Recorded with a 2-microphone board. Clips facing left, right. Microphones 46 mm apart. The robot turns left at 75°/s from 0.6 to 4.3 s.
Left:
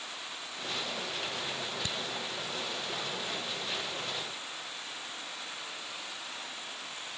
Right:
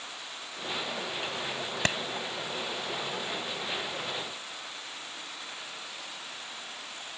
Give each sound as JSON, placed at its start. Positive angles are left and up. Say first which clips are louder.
{"t": 1.9, "sound": "a clap", "louder": "right 9 dB", "side_deg": -70}